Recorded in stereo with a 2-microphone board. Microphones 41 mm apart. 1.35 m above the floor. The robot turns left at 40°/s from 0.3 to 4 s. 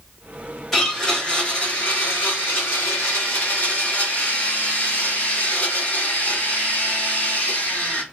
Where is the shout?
I don't hear a shout.